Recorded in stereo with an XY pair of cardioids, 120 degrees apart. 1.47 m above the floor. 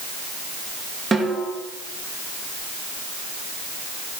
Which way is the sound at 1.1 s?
25° right.